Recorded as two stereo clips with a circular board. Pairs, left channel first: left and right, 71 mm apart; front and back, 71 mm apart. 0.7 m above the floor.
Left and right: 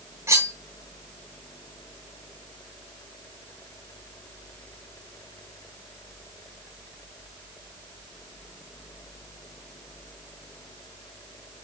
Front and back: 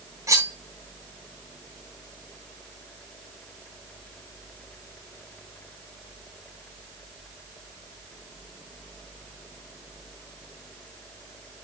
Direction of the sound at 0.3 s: 140° right.